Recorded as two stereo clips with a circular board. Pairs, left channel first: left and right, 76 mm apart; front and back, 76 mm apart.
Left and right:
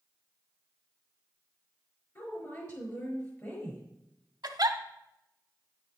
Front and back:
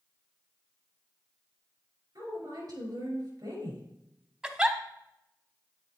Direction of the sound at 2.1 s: 145° left.